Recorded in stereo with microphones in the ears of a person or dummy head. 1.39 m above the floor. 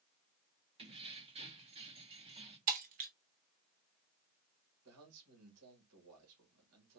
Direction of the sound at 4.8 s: 85° right.